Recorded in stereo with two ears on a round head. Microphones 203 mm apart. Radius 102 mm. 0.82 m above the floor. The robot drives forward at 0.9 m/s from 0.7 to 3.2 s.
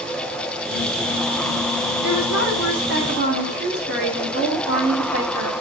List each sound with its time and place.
2.0 s a woman speaking: 55° right (ahead or behind), 8 m; by 5.5 s 50° right (ahead or behind), 8.5 m